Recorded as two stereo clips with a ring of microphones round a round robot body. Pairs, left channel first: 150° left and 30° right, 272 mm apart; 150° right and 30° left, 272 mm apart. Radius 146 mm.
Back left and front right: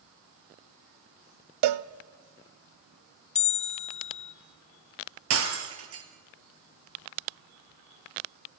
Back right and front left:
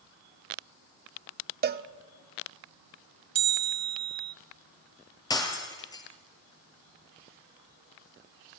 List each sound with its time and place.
1.6 s a cowbell: 30° right, 0.8 m
3.4 s a bell: 95° left, 1.1 m
5.3 s breaking glass: 70° right, 3.5 m